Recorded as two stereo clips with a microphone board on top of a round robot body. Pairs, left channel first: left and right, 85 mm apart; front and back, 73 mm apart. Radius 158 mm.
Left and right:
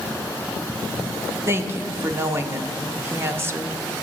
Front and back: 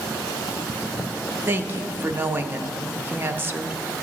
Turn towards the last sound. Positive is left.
turn(degrees=-130)